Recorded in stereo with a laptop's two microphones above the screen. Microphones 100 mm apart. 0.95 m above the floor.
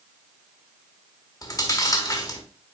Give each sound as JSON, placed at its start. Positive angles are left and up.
{"t": 1.4, "sound": "chewing", "side_deg": 35, "distance_m": 1.2}